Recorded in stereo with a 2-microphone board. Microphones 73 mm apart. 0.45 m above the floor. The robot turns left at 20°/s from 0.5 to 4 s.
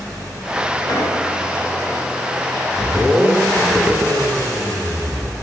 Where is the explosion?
65° left (ahead or behind), 2.5 m; by 1.2 s 70° left (ahead or behind), 2.5 m.